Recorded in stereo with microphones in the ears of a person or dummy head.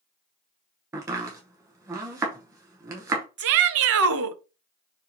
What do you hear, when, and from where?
0.9 s chopping: 20° right (ahead or behind), 0.8 m
3.4 s a shout: 80° right, 0.6 m